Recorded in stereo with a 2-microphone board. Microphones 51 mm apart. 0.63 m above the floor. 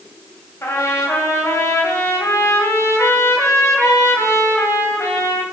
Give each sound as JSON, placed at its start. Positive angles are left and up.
{"t": 0.6, "sound": "a trumpet", "side_deg": 65, "distance_m": 2.5}